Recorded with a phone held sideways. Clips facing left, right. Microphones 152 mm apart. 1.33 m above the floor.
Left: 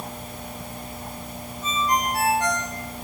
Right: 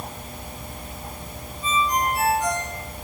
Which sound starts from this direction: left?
A ringtone, at 1.6 s.